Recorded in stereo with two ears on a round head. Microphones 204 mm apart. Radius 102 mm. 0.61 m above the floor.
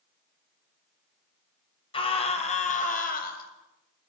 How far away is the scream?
About 4 m.